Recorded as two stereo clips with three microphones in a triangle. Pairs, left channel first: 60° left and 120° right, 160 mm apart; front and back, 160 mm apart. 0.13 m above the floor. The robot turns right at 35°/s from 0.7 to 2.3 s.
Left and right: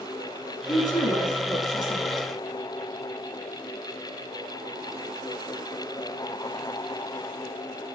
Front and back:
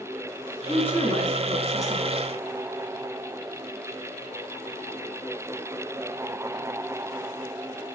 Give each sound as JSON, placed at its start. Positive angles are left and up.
{"t": 0.7, "sound": "a woman speaking", "azimuth_deg": 50, "distance_m": 1.2}